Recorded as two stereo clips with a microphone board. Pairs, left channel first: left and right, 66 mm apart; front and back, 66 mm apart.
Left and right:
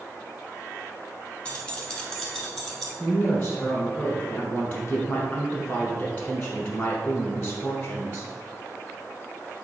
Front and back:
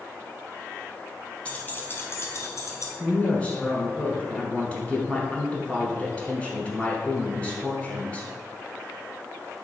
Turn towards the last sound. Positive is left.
turn(degrees=45)